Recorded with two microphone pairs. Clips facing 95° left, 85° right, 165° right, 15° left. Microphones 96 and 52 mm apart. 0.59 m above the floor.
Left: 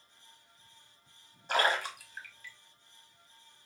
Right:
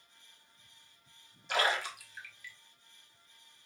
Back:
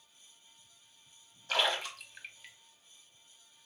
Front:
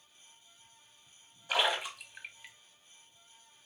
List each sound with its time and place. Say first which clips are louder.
1.5 s a splash: left 2 dB, front 1 dB; 80° left, 1.1 m